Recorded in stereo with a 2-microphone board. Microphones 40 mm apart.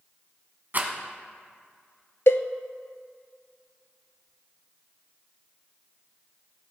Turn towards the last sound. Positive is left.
turn(degrees=80)